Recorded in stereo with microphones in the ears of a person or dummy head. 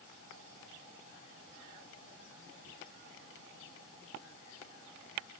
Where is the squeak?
I don't hear a squeak.